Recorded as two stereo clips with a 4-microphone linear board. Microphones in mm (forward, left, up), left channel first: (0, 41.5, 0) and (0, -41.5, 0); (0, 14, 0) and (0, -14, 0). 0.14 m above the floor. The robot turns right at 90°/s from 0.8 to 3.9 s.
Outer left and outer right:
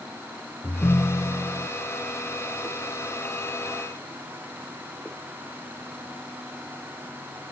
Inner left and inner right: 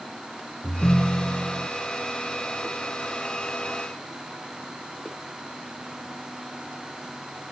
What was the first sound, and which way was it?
A ringtone, 50° left.